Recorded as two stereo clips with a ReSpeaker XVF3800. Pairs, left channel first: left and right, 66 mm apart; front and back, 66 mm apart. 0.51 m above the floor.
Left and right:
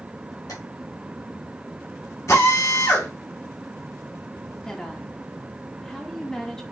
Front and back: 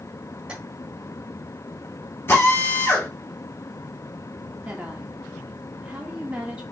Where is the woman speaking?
150° left, 0.6 m.